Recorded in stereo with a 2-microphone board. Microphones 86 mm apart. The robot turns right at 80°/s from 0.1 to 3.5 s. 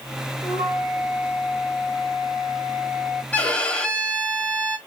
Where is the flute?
80° left, 3.5 m; by 3.2 s 55° right, 3.5 m.